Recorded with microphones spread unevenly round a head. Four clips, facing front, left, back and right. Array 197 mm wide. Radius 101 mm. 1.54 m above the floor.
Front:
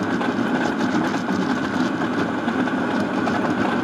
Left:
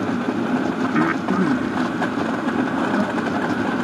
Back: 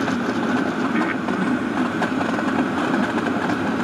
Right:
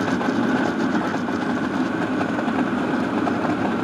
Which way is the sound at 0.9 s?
90° left.